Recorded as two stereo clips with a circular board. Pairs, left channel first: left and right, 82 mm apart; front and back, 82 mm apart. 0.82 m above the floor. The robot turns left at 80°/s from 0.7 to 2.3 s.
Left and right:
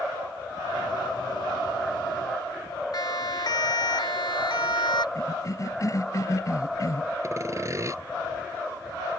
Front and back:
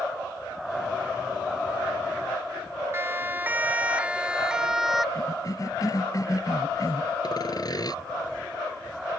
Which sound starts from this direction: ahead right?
Sawing, at 7.2 s.